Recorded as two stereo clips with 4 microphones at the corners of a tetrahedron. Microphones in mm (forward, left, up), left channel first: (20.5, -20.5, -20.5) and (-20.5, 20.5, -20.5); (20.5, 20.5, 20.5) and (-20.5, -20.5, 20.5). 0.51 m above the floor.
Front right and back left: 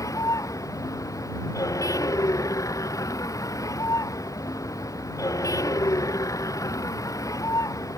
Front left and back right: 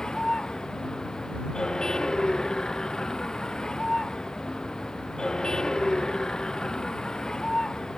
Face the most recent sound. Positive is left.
turn(degrees=-35)